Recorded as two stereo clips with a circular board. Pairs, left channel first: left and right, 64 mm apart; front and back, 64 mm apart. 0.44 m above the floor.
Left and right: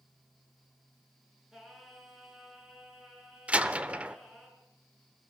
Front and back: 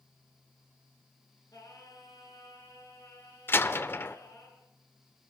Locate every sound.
1.5 s singing: 10° right, 5.5 m
3.5 s a door slam: 30° right, 0.9 m